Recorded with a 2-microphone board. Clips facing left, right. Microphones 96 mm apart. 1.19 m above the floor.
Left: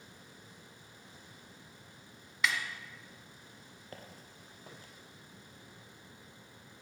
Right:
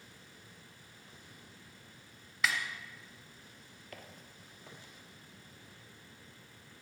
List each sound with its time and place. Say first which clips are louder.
2.4 s a snare drum: left 1 dB; centre (ahead or behind), 1.7 m
3.9 s footsteps: left 1 dB; 30° left (ahead or behind), 1.3 m; by 4.9 s 45° left (ahead or behind), 1.9 m